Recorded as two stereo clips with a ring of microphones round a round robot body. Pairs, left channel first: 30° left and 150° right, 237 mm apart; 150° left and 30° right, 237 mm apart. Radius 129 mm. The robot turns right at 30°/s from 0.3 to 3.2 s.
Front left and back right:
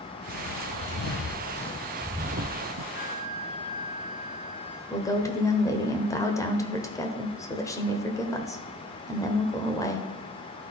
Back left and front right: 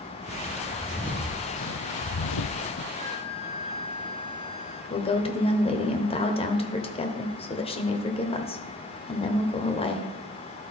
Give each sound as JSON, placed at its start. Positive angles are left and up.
{"t": 0.3, "sound": "footsteps", "azimuth_deg": 30, "distance_m": 1.7}
{"t": 2.9, "sound": "a flute", "azimuth_deg": 90, "distance_m": 4.0}
{"t": 4.9, "sound": "a woman speaking", "azimuth_deg": 100, "distance_m": 1.2}